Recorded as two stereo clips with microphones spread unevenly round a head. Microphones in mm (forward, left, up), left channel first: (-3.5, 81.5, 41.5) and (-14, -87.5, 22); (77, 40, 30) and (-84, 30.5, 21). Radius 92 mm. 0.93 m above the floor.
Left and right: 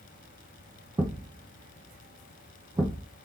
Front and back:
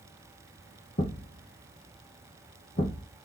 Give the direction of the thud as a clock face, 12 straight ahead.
1 o'clock.